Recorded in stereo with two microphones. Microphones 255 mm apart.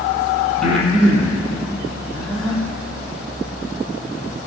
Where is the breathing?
Centre (ahead or behind), 3.5 m.